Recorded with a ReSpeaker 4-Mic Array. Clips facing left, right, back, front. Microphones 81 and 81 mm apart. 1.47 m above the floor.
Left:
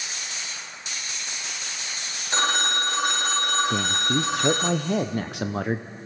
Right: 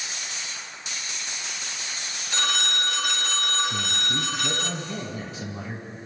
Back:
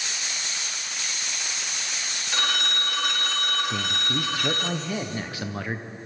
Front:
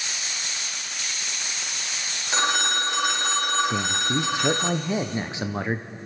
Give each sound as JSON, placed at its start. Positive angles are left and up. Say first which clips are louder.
{"t": 2.3, "sound": "a phone ringing", "louder": "left 4 dB, front 5 dB", "azimuth_deg": 55, "distance_m": 1.1}
{"t": 3.7, "sound": "a man speaking", "louder": "left 5 dB, front 3 dB", "azimuth_deg": 70, "distance_m": 0.5}